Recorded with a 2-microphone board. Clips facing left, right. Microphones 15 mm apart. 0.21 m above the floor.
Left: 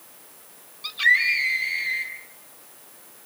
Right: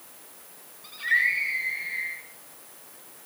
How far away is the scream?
About 7.5 m.